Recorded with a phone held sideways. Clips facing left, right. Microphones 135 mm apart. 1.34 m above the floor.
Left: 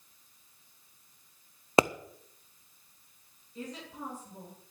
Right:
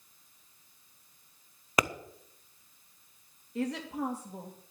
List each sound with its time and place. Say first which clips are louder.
1.8 s a pop: left 6 dB; 30° left (ahead or behind), 0.5 m
3.5 s a woman speaking: right 9 dB; 80° right, 2.5 m